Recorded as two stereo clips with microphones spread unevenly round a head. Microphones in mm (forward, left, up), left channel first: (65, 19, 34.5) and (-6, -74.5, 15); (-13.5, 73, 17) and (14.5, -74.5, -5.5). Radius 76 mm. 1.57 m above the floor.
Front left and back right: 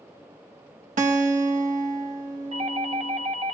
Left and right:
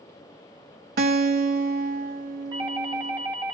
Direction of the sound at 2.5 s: 135° right.